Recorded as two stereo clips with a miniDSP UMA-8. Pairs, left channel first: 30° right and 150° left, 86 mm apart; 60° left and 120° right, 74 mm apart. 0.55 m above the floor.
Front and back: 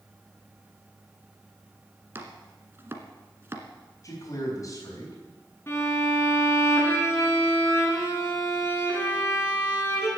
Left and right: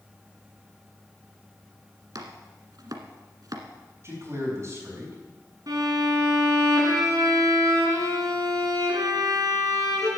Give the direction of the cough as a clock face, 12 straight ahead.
I don't hear a cough.